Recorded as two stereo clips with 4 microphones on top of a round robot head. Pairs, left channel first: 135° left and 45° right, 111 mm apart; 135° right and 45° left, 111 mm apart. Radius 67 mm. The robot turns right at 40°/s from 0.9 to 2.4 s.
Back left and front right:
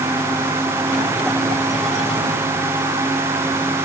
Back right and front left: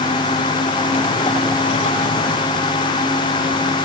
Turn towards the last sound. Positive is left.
No sound to turn to.